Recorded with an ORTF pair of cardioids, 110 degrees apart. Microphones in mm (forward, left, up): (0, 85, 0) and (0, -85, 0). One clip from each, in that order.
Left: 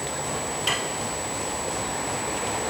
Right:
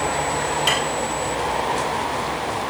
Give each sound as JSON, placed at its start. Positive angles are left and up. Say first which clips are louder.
{"t": 0.7, "sound": "dishes clattering", "louder": "right 4 dB", "azimuth_deg": -20, "distance_m": 0.7}